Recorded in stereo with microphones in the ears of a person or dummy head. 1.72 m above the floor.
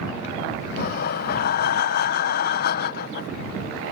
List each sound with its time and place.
0.8 s breathing: 55° left (ahead or behind)